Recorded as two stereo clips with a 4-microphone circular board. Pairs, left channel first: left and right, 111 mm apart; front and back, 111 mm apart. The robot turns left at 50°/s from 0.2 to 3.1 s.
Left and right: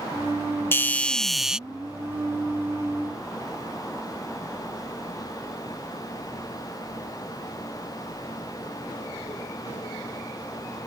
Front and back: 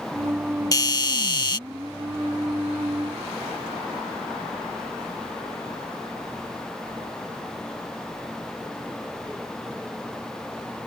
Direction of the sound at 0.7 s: 35° left.